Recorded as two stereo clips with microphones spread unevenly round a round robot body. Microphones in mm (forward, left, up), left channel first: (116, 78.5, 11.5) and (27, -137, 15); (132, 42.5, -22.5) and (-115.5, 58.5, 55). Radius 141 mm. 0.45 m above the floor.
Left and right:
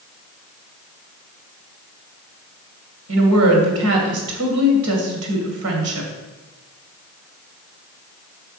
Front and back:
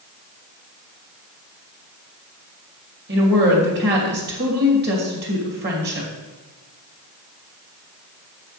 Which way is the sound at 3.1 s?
125° right.